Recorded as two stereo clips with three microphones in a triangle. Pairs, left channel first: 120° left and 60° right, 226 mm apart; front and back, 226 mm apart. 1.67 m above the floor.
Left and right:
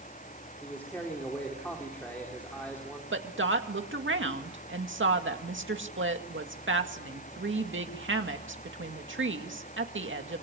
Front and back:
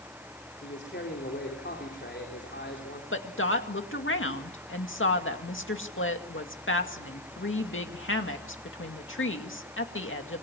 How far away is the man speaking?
About 4 m.